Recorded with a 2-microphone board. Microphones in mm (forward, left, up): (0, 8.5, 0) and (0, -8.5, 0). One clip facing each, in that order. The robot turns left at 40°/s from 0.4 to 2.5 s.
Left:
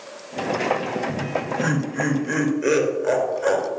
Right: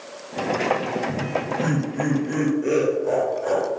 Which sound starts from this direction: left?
Laughter, at 1.1 s.